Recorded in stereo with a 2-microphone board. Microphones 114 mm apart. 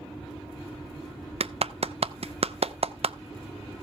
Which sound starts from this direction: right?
A clap, at 1.4 s.